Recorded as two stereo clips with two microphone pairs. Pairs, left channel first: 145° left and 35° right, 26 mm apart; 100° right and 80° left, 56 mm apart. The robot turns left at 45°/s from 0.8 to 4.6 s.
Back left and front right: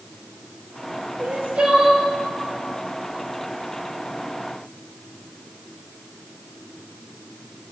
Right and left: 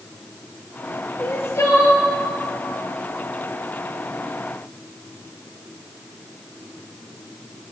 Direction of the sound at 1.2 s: 40° right.